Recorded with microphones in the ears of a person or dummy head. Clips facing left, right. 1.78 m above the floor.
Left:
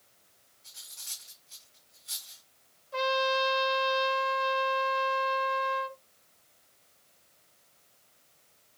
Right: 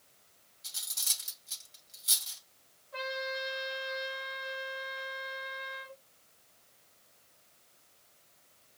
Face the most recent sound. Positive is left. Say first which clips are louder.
# left 9 dB
turn(degrees=60)  # may be behind; listen again after turning